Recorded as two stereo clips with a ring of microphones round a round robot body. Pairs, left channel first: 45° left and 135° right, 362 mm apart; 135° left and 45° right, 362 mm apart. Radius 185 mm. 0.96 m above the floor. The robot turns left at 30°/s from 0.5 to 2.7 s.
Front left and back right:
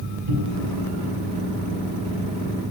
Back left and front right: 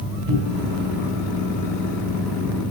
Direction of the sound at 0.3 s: 105° right.